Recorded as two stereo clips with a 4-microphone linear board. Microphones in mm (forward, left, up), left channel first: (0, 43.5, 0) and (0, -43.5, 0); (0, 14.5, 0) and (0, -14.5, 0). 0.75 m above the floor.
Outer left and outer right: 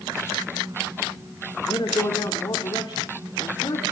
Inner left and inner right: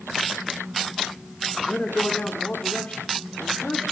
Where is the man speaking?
65° left (ahead or behind), 2 m.